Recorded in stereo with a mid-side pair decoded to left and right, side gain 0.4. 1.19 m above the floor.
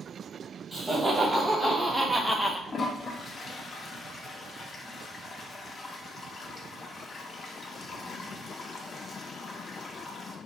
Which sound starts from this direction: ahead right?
Laughter, at 0.7 s.